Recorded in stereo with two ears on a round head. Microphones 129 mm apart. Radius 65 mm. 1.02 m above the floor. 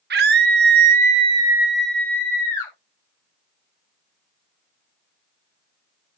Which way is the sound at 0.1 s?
85° right.